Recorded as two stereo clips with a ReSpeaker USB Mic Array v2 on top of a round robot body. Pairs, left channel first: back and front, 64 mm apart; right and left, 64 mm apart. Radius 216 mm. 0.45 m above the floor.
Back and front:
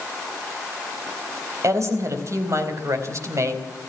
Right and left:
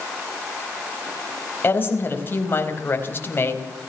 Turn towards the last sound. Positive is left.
turn(degrees=-35)